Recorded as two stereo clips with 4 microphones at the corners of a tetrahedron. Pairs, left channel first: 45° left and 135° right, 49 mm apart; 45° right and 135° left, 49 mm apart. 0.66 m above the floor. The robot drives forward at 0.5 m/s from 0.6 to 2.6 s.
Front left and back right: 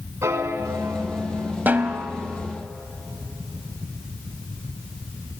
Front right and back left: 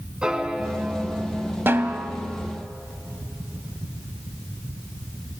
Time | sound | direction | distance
0.2 | a piano | 150° right | 1.8 m
1.7 | a snare drum | 175° left | 1.2 m